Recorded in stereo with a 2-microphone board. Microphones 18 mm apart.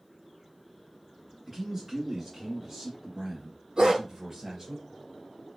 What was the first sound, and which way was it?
A man speaking, 20° right (ahead or behind).